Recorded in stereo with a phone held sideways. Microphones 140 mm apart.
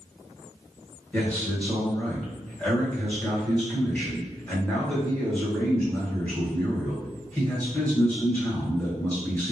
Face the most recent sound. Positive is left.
turn(degrees=10)  # may be behind; listen again after turning